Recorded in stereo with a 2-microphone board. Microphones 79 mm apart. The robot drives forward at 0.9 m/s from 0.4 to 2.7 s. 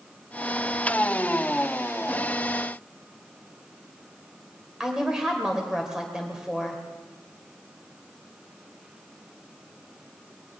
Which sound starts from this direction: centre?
A woman speaking, at 4.8 s.